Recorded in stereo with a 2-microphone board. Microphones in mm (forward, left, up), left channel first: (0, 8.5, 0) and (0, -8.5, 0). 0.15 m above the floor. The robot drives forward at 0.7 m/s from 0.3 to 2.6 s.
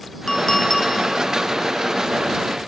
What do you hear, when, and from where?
0.3 s a clink: 40° left (ahead or behind), 0.9 m; by 0.9 s 30° left (ahead or behind), 1.1 m